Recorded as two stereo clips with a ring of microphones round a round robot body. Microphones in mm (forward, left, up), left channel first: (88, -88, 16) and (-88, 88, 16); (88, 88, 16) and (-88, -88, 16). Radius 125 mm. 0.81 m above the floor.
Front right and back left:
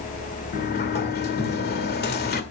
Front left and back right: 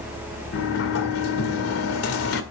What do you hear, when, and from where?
0.5 s a sliding door: 10° left, 1.8 m